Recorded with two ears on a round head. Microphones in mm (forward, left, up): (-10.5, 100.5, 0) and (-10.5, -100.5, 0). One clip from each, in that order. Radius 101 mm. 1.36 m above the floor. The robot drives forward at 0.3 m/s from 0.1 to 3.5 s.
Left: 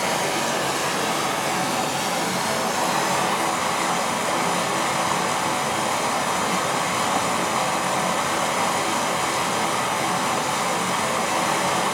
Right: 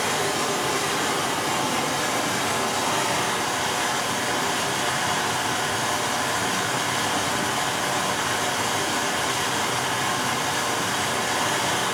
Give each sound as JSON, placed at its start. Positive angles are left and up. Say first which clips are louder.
{"t": 0.0, "sound": "running water", "louder": "left 1 dB", "side_deg": 40, "distance_m": 1.7}